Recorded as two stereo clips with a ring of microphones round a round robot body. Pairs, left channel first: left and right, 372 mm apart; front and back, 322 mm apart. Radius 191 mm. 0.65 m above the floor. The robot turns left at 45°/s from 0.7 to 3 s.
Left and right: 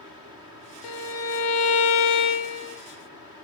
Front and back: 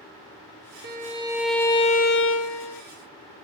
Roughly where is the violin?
Behind left.